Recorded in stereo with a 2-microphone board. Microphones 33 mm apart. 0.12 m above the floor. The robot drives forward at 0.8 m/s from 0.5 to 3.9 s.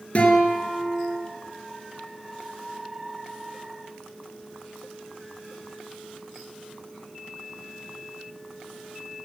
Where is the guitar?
45° left (ahead or behind), 1.9 m; by 1.2 s 40° left (ahead or behind), 2 m.